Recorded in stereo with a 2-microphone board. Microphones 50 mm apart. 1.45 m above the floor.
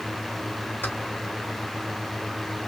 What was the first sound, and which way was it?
Keys jangling, 40° left (ahead or behind).